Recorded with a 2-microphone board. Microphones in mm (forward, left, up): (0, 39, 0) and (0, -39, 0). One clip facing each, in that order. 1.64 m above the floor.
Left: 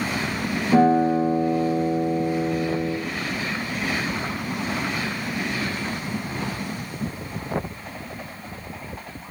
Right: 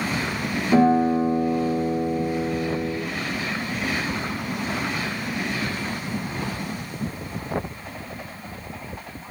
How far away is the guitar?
About 1.4 m.